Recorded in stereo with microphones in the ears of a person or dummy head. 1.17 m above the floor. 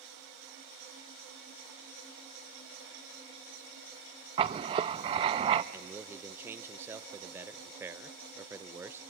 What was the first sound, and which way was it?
Writing, 30° right (ahead or behind).